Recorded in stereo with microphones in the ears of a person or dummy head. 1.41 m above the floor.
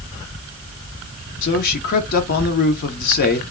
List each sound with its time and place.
1.4 s a man speaking: 50° left (ahead or behind), 0.7 m